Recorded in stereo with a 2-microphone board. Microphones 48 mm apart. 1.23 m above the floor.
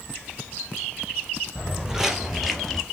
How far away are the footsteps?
About 1.9 m.